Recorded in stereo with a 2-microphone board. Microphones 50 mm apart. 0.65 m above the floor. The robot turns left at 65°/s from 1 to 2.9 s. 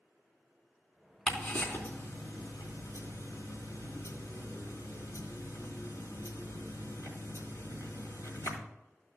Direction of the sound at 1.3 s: 10° left (ahead or behind).